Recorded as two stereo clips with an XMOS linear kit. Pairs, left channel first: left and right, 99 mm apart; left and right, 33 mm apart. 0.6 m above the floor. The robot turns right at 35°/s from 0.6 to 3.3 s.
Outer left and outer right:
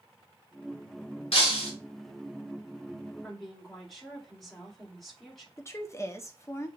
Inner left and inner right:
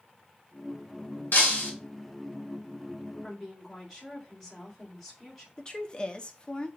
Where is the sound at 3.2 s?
5° left (ahead or behind), 2.5 m; by 5.5 s centre (ahead or behind), 2.5 m.